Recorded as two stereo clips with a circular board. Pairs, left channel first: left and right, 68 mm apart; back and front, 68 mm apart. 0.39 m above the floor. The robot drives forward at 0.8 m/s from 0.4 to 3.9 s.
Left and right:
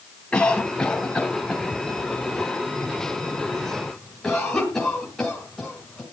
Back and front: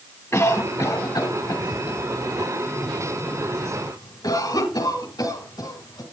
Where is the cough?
140° left, 1.3 m; by 6.0 s 170° left, 3.5 m.